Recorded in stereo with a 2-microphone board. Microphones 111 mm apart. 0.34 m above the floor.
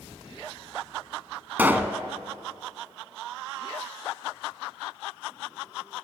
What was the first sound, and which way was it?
A pop, 15° right (ahead or behind).